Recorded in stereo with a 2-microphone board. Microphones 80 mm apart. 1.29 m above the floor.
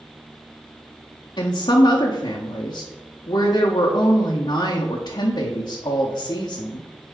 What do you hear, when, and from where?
1.4 s a woman speaking: 80° left, 0.6 m